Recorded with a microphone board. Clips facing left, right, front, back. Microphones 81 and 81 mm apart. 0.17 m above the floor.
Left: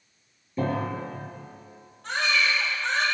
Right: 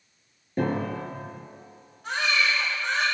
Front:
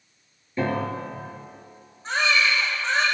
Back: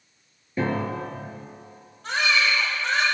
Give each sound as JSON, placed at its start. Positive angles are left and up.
{"t": 0.6, "sound": "a piano", "azimuth_deg": -110, "distance_m": 3.5}
{"t": 2.0, "sound": "a baby crying", "azimuth_deg": -175, "distance_m": 5.5}